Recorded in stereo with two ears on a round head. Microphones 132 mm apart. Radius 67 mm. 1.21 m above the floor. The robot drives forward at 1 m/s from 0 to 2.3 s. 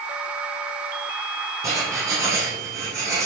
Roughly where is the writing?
Right.